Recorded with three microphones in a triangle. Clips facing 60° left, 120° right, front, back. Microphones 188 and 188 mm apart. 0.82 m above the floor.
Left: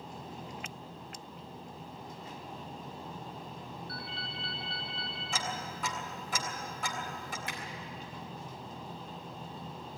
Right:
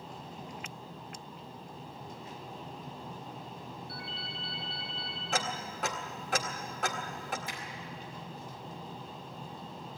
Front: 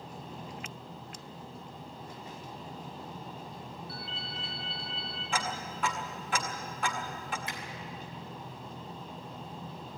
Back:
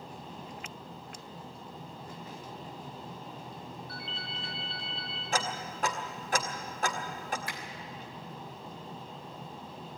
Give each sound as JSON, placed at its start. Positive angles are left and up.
{"t": 3.9, "sound": "a ringtone", "azimuth_deg": 85, "distance_m": 7.5}
{"t": 5.3, "sound": "ticking", "azimuth_deg": -135, "distance_m": 2.0}
{"t": 7.5, "sound": "a finger snap", "azimuth_deg": 65, "distance_m": 3.5}